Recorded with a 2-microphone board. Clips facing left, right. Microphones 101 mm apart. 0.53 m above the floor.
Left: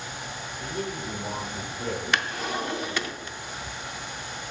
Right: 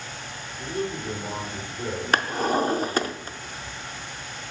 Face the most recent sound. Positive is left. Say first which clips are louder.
# right 9 dB
turn(degrees=-40)  # may be behind; listen again after turning